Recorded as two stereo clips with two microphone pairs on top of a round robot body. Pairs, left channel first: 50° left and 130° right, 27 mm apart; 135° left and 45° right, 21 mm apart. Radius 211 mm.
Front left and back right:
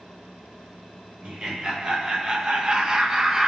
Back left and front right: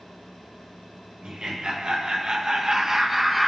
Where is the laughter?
65° right, 1.6 m; by 3.5 s 145° right, 0.9 m.